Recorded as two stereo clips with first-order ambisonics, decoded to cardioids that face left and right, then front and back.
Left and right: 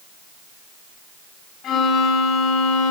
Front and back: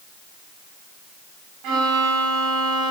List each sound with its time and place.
1.6 s a violin: 145° left, 5.5 m